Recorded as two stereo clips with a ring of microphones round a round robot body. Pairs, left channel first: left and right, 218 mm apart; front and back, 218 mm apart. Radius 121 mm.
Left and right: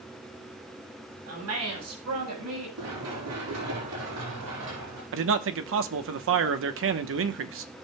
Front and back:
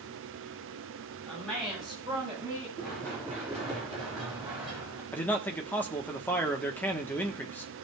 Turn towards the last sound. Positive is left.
turn(degrees=-80)